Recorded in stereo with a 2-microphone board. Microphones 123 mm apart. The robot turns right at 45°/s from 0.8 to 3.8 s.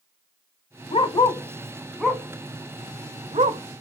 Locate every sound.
0.9 s a dog barking: 50° left (ahead or behind), 0.7 m; by 3.6 s 75° right (ahead or behind), 0.7 m